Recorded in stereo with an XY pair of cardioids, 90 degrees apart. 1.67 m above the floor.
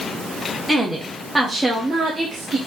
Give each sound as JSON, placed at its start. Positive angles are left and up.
{"t": 0.7, "sound": "a woman speaking", "azimuth_deg": -5, "distance_m": 1.4}